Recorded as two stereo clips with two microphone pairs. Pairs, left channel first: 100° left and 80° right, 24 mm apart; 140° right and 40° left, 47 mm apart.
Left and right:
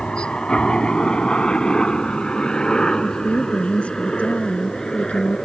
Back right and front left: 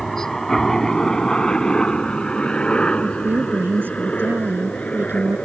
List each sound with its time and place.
0.0 s a helicopter: 135° left; by 5.5 s 160° left
3.0 s a woman speaking: 80° left